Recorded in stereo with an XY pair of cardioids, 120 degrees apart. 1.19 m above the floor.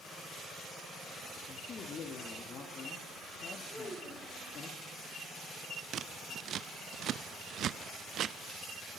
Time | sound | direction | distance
1.5 | a man speaking | 50° left | 2.5 m
3.7 | a child speaking | 5° left | 4 m
5.9 | scissors | 55° right | 0.7 m